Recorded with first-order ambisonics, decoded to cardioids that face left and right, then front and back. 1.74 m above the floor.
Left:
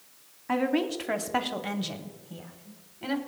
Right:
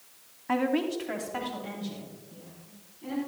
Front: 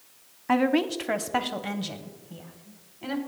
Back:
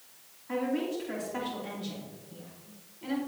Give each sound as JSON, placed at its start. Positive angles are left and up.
{"t": 0.5, "sound": "a woman speaking", "azimuth_deg": 0, "distance_m": 0.8}